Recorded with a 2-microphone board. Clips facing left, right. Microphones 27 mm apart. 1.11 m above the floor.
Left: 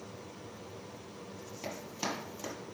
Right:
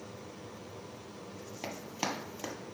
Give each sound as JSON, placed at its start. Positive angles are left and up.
{"t": 1.6, "sound": "running footsteps", "side_deg": -30, "distance_m": 1.5}